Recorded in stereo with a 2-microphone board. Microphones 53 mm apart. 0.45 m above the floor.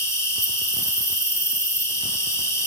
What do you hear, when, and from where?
0.0 s an insect: 70° left (ahead or behind), 1.5 m